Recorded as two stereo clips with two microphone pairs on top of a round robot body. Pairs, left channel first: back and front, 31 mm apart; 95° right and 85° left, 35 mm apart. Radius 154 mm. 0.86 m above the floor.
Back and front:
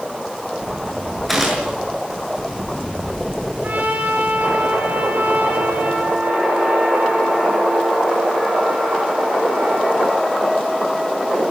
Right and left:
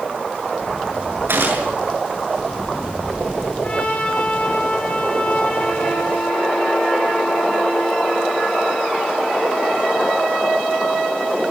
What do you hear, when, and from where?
1.3 s a gunshot: 85° left, 7 m
3.6 s a trumpet: 35° right, 6.5 m